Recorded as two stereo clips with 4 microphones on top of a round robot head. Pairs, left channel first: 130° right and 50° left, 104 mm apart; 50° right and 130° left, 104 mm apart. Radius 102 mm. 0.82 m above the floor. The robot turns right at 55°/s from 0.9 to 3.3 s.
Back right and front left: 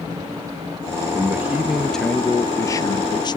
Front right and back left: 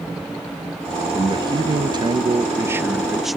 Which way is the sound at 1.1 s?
100° left.